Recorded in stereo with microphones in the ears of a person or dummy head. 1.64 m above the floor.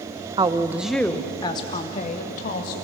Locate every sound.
0.4 s a woman speaking: 25° right (ahead or behind), 1.0 m; by 2.7 s 50° left (ahead or behind), 2 m